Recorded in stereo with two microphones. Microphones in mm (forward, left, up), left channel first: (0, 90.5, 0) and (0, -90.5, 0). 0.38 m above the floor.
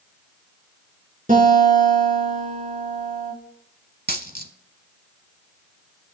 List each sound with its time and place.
1.3 s a guitar: 50° right (ahead or behind), 4 m
4.1 s a dropped coin: 60° right (ahead or behind), 0.9 m